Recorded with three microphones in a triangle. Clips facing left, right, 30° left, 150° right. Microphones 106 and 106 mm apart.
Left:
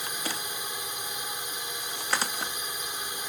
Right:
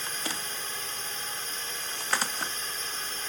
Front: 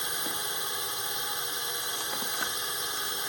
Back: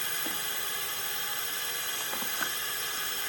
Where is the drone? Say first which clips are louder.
Left 1 dB, front 2 dB; 45° left.